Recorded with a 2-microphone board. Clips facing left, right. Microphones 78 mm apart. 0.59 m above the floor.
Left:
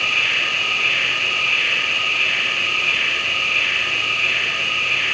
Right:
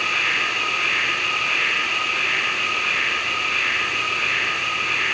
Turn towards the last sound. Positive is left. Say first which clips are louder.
# even
turn(degrees=-40)  # may be behind; listen again after turning